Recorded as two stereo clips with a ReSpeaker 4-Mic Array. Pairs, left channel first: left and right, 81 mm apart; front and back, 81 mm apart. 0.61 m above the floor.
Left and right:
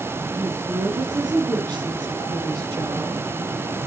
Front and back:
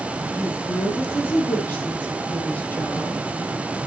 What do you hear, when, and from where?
0.3 s a woman speaking: 55° right, 6.5 m; by 3.2 s 70° right, 8 m